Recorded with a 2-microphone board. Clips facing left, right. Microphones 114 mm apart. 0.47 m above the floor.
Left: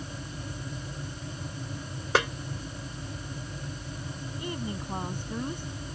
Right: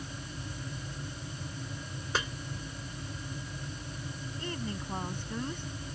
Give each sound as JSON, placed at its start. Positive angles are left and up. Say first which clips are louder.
{"t": 2.1, "sound": "a snare drum", "louder": "left 9 dB", "side_deg": 75}
{"t": 4.4, "sound": "a woman speaking", "louder": "left 3 dB", "side_deg": 15}